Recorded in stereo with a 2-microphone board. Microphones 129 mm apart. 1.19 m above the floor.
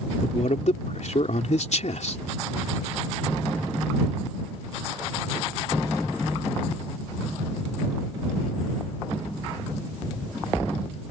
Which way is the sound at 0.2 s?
65° left (ahead or behind).